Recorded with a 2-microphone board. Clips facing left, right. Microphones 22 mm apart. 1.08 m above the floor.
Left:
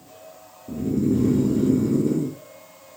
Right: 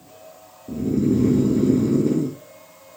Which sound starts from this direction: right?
Snoring, at 0.7 s.